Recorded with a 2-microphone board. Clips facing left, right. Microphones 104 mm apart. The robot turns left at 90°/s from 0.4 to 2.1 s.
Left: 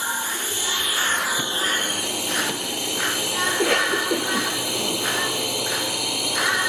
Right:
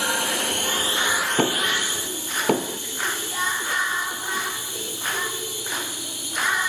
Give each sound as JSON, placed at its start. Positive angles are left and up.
{"t": 0.0, "sound": "a drone", "azimuth_deg": -105}
{"t": 1.4, "sound": "knocking", "side_deg": -55}
{"t": 3.5, "sound": "a cough", "side_deg": 75}